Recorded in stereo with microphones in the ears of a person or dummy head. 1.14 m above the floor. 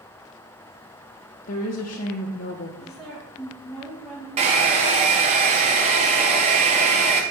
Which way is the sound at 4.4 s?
35° right (ahead or behind).